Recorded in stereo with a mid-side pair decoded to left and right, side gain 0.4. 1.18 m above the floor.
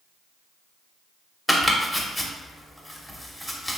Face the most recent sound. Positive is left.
turn(degrees=5)